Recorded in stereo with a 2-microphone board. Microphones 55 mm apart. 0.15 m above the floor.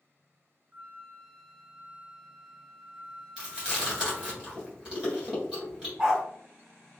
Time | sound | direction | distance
0.7 | a flute | 30° right (ahead or behind) | 0.5 m
3.4 | chewing | 15° right (ahead or behind) | 1.4 m
6.0 | a dog barking | 15° right (ahead or behind) | 1.4 m